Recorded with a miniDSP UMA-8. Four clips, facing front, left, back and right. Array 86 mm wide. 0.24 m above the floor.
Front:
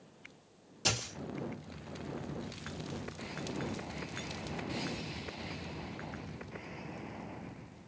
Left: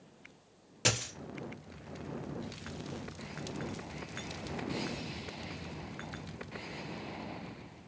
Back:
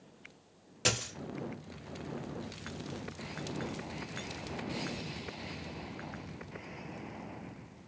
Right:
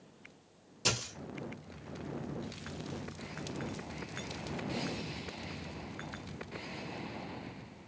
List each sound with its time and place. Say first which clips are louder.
0.8 s a dropped coin: left 2 dB, back 2 dB; 120° left, 1.6 m